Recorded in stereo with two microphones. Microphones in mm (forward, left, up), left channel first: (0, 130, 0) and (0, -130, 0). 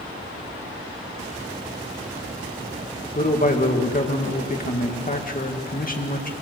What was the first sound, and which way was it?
A man speaking, 35° left (ahead or behind).